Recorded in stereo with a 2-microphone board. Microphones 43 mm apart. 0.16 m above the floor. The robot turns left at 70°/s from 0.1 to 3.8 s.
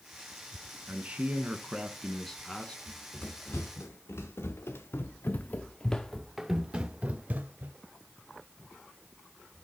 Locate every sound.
0.9 s a man speaking: 95° right, 1.4 m; by 2.8 s 135° left, 1.4 m
2.9 s running footsteps: 20° left (ahead or behind), 2.5 m; by 7.8 s 45° right (ahead or behind), 1.5 m